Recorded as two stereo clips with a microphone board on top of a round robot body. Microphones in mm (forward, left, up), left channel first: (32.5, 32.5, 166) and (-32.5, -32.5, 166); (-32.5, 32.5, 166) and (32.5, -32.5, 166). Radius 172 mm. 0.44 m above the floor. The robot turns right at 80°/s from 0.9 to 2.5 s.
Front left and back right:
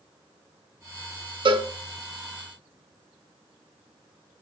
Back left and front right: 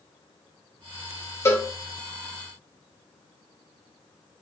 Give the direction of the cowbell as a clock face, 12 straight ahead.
5 o'clock.